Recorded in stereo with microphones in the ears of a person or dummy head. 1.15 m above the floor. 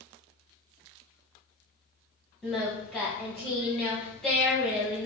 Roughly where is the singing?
Centre.